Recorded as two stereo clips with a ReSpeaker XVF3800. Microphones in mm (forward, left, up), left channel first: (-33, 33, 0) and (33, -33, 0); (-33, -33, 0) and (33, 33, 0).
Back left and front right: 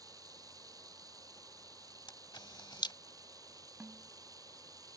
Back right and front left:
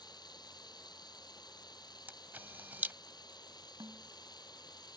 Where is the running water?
95° right.